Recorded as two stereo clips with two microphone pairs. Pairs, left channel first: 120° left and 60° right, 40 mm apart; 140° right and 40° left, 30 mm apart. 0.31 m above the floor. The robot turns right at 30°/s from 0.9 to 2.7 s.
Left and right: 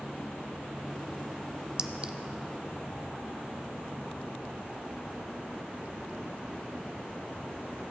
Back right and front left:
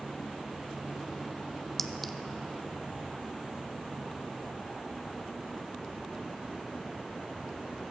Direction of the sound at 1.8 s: 75° right.